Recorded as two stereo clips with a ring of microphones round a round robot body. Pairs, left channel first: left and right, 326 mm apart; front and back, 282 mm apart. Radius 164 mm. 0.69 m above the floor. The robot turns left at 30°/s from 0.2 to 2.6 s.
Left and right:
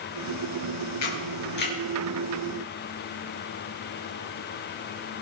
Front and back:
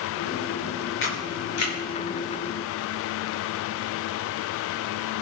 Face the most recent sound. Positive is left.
turn(degrees=0)